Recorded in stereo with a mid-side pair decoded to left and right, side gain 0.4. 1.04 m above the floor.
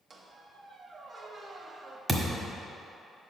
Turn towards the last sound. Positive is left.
turn(degrees=-10)